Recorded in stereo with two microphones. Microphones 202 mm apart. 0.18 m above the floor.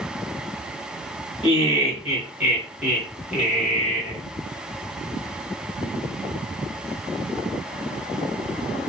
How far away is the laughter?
About 1.8 m.